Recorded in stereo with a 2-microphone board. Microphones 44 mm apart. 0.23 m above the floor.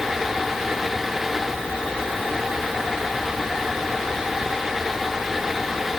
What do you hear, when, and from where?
Only background noise.